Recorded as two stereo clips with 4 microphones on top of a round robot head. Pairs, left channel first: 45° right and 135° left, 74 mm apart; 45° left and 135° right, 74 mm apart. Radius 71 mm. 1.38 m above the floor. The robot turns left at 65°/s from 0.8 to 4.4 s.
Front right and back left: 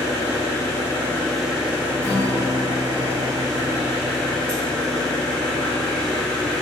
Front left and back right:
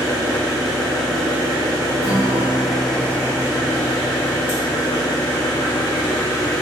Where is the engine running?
100° right, 3 m; by 6.6 s 30° left, 3 m.